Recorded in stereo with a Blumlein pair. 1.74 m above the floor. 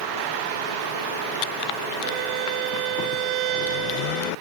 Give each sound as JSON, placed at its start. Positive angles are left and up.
{"t": 2.0, "sound": "a violin", "azimuth_deg": -40}